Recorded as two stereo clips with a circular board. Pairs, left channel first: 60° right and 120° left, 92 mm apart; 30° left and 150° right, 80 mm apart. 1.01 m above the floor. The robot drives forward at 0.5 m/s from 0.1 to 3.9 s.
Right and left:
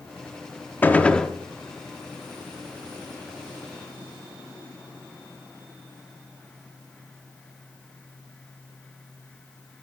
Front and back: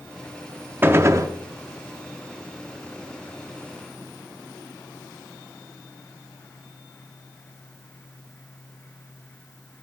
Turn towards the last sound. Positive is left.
turn(degrees=-170)